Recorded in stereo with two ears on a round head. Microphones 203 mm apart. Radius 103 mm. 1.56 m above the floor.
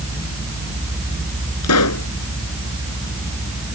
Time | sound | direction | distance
1.6 | a pop | 85° left | ?